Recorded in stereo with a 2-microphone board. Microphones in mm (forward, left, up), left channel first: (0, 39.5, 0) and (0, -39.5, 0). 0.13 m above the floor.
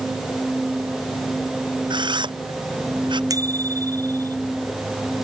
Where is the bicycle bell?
50° right (ahead or behind).